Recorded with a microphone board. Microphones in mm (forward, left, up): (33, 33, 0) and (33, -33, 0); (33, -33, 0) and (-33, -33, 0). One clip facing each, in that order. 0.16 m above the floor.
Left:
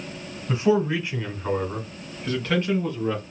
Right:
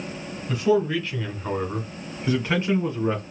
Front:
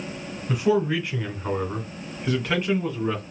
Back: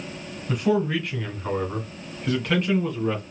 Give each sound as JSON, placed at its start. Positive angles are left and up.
{"t": 0.5, "sound": "a man speaking", "azimuth_deg": 80, "distance_m": 1.7}